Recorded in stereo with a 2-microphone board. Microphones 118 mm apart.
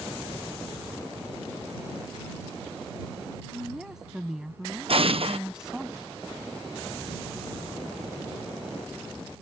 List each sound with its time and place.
3.5 s a woman speaking: 5° right (ahead or behind)
4.9 s an explosion: 60° right (ahead or behind)